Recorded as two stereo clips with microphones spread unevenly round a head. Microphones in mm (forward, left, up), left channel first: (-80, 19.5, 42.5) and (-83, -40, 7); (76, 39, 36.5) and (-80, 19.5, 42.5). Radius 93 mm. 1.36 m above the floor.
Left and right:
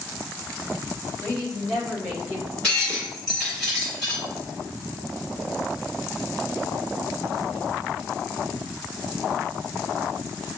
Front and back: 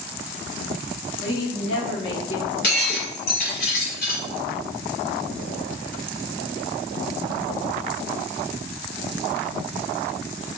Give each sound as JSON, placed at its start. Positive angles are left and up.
{"t": 1.2, "sound": "a woman speaking", "azimuth_deg": 10, "distance_m": 2.0}
{"t": 2.6, "sound": "breaking glass", "azimuth_deg": 25, "distance_m": 2.0}